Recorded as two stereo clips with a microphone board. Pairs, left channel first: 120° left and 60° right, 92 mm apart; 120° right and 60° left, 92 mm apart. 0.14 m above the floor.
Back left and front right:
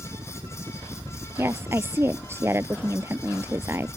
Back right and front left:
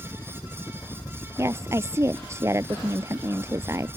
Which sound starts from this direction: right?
A helicopter, at 0.0 s.